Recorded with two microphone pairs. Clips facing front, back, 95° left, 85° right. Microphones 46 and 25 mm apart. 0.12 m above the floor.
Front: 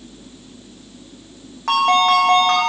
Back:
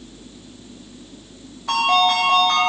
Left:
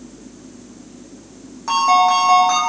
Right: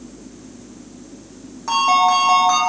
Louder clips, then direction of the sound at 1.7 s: Front 3 dB, left 1 dB; 10° left.